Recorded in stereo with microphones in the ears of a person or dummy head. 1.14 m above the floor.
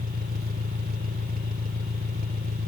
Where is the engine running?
55° right (ahead or behind).